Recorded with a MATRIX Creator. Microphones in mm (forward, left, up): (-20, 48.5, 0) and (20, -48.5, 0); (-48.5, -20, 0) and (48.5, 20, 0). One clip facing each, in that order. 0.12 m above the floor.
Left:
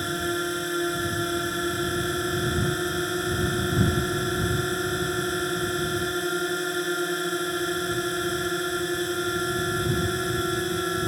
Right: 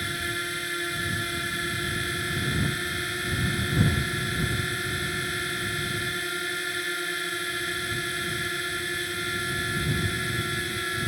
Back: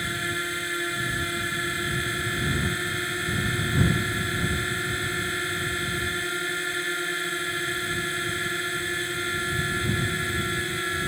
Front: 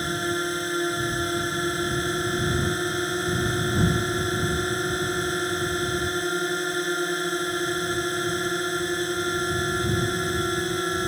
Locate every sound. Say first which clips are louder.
0.0 s a drone: left 6 dB, front 5 dB; 75° left